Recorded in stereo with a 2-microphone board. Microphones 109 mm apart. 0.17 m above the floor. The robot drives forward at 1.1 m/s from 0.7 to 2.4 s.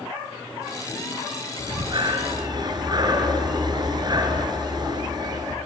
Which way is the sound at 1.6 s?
50° right (ahead or behind).